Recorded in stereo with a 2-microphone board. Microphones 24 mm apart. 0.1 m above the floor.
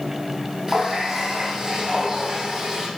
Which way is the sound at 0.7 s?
20° right (ahead or behind).